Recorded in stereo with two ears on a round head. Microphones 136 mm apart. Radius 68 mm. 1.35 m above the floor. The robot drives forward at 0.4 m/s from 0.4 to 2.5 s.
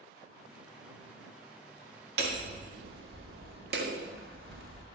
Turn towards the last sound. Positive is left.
turn(degrees=-70)  # may be behind; listen again after turning